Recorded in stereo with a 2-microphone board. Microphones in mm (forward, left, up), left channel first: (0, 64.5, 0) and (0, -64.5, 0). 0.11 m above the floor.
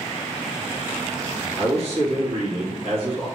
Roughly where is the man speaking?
Right.